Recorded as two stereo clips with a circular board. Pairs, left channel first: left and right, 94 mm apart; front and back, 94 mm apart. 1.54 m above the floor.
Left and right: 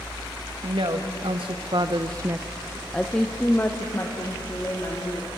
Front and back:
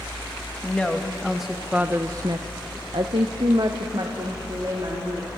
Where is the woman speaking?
75° right, 2 m; by 5.3 s 140° left, 3.5 m.